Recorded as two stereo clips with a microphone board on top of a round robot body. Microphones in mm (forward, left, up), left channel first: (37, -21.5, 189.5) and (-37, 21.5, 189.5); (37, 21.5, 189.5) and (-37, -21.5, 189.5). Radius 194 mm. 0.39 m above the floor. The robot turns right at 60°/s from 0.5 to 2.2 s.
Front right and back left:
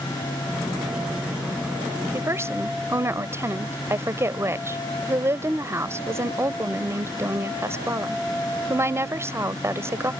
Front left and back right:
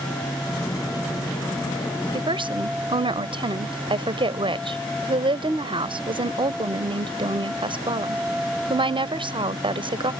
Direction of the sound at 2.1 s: 155° right.